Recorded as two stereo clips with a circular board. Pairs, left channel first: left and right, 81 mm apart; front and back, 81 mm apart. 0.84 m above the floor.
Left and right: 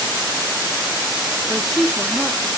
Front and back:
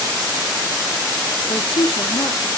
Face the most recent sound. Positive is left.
turn(degrees=0)